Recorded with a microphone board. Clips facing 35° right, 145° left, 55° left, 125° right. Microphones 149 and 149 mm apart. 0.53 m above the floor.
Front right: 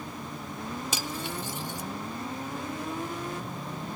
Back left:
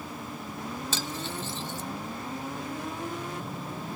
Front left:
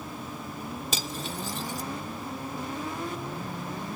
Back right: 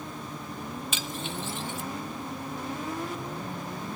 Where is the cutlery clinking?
35° left, 0.6 m.